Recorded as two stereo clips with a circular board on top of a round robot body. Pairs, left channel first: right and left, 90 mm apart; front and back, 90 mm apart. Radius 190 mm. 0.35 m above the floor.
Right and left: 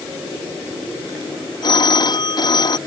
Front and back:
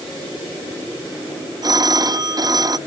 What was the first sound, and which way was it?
A phone ringing, 130° right.